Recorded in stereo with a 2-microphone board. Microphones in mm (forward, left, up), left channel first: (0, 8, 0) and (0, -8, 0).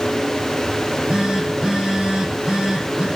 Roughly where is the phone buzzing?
Right.